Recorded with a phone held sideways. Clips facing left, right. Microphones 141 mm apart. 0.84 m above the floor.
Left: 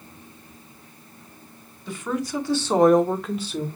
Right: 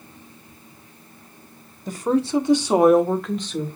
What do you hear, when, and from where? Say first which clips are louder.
1.9 s a woman speaking: right 7 dB; 45° right (ahead or behind), 1.6 m; by 3.7 s 10° left (ahead or behind), 2.5 m